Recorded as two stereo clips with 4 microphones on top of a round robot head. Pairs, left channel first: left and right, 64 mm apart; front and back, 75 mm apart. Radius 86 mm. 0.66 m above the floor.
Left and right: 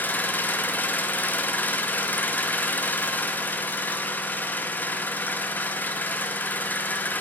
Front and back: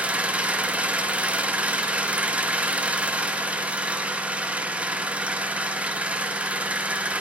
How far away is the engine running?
About 0.8 m.